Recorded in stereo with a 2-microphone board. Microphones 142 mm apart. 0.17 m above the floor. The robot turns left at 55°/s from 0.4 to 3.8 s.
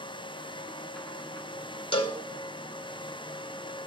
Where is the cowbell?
40° left (ahead or behind), 0.7 m.